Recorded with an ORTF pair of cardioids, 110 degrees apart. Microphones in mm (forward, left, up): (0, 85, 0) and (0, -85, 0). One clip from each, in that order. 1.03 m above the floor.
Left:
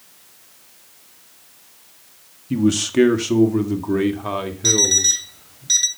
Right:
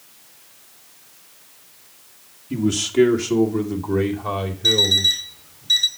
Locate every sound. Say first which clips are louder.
2.5 s a man speaking: left 2 dB; 25° left, 1.3 m; by 5.6 s 35° left, 3 m
4.6 s an alarm clock: right 1 dB; 25° left, 2 m